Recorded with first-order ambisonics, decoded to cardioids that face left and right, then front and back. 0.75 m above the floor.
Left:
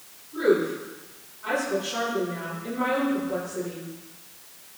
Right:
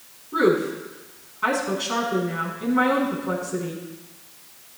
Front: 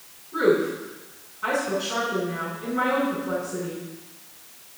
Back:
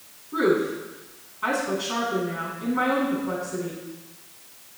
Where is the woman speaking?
115° right, 6.5 m.